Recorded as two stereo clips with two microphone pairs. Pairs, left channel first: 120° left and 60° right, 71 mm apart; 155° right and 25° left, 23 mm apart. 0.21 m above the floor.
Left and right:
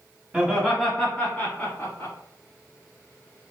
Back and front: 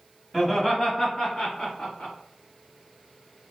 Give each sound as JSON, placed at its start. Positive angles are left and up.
{"t": 0.3, "sound": "laughter", "azimuth_deg": -85, "distance_m": 1.1}